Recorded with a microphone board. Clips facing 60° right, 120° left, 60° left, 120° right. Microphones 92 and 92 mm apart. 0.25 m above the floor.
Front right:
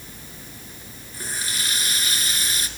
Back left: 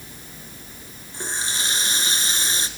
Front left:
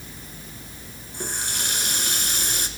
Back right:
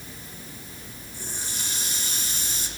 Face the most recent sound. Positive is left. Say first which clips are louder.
# back left 3 dB, front left 7 dB
turn(degrees=60)